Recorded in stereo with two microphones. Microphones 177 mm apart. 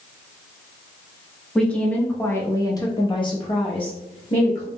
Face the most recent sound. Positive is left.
turn(degrees=30)  # may be behind; listen again after turning